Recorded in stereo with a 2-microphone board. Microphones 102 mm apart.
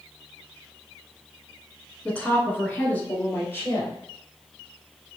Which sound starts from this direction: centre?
A woman speaking, at 2.0 s.